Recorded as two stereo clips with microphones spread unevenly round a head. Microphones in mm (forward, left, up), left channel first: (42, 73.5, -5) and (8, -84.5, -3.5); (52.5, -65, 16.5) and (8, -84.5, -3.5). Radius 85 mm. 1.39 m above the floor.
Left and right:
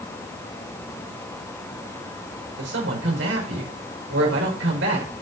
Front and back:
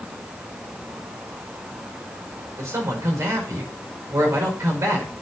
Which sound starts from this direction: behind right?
A man speaking, at 2.6 s.